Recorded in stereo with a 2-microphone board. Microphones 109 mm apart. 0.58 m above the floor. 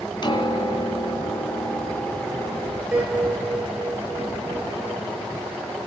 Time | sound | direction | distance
0.2 | a piano | 40° left (ahead or behind) | 2.5 m
2.9 | a piano | 10° right (ahead or behind) | 7.5 m